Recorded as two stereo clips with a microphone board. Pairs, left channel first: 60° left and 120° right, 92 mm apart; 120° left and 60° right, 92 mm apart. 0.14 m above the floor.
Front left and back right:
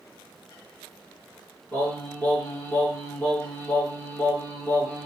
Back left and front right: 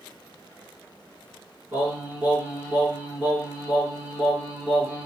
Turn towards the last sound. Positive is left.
turn(degrees=-5)